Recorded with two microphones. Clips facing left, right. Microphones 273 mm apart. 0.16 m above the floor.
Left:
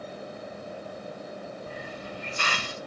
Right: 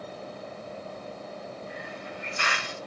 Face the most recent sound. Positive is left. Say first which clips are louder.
# left 1 dB
turn(degrees=40)  # may be behind; listen again after turning